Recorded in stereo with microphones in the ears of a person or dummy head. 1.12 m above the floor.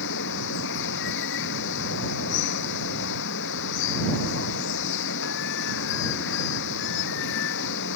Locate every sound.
0.0 s running water: 65° left (ahead or behind)